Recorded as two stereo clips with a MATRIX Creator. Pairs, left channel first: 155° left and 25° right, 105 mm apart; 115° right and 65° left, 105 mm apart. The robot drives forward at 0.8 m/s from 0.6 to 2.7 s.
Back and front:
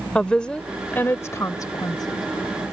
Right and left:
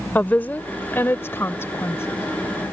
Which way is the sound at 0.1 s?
140° right.